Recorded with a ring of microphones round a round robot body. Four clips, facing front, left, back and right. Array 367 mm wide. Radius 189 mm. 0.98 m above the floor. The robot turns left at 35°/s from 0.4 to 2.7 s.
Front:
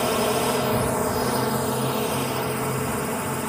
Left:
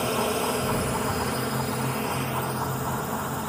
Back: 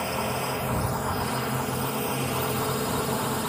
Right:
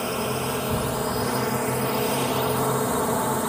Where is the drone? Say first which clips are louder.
Left 1 dB, front 7 dB; straight ahead; by 3.5 s 80° right.